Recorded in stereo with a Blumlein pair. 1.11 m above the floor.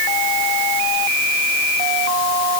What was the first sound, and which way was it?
Only background noise.